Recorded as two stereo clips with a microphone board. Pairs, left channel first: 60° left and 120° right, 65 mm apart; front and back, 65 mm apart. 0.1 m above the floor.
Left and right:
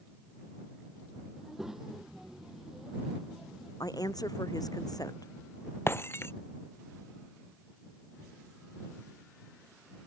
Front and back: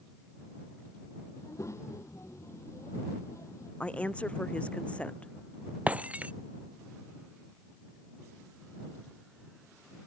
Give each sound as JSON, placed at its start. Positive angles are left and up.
{"t": 1.4, "sound": "a child speaking", "azimuth_deg": -35}
{"t": 3.8, "sound": "a woman speaking", "azimuth_deg": 70}
{"t": 5.9, "sound": "breaking glass", "azimuth_deg": 115}